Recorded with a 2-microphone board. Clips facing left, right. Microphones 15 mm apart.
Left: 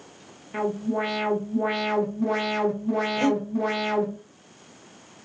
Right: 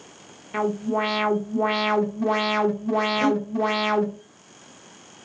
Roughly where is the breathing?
Left.